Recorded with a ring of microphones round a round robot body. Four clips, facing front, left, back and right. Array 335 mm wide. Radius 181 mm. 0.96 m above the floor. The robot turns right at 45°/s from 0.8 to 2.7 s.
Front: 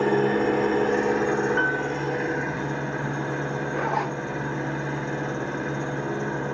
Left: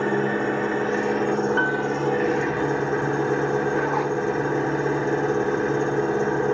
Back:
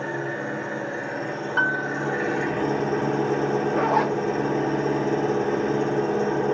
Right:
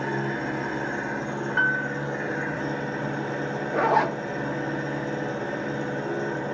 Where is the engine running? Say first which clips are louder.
Left 6 dB, front 8 dB; 50° left, 1.5 m; by 6.5 s 135° left, 1.5 m.